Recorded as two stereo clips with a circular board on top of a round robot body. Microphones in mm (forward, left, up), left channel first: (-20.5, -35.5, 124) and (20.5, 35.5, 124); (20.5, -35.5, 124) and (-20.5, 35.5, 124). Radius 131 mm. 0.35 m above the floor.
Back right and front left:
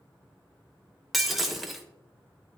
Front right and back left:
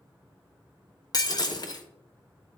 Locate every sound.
1.1 s breaking glass: 30° right, 1.2 m